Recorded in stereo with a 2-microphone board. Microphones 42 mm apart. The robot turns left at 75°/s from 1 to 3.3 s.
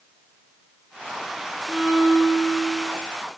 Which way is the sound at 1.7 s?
20° left.